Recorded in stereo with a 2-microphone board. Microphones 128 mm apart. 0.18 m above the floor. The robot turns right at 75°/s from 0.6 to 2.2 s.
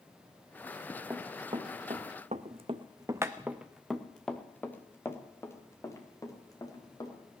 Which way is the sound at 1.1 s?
20° right (ahead or behind).